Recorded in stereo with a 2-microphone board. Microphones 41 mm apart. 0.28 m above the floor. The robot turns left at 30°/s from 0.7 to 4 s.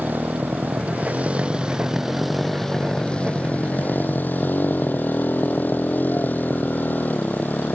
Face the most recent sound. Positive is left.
turn(degrees=130)